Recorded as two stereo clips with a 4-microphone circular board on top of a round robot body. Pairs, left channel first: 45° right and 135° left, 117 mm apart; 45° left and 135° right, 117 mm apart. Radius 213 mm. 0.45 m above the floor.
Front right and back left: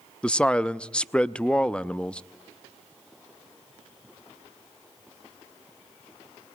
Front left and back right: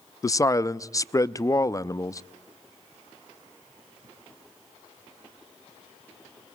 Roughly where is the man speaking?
Ahead left.